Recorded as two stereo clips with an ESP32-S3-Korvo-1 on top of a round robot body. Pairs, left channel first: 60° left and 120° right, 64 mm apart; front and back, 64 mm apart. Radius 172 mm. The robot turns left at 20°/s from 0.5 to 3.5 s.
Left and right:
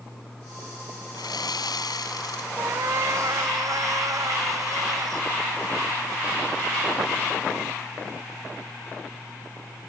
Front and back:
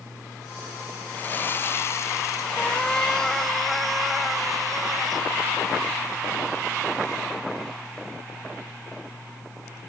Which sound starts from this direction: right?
A cat meowing, at 2.6 s.